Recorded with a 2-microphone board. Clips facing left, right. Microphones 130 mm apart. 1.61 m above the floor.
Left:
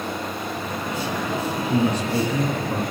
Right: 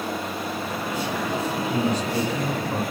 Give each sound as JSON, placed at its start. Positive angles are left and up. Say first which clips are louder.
{"t": 1.7, "sound": "a man speaking", "louder": "left 4 dB", "side_deg": 55, "distance_m": 3.5}